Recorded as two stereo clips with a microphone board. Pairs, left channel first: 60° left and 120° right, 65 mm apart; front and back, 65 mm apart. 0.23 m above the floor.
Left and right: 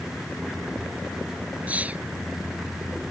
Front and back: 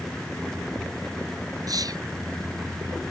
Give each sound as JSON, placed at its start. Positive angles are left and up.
{"t": 1.7, "sound": "whispering", "azimuth_deg": 175}